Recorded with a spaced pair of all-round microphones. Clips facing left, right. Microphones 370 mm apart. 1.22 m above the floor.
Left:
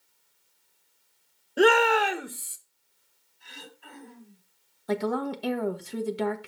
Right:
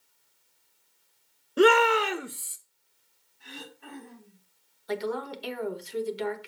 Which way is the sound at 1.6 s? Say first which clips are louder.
Even; 10° right (ahead or behind).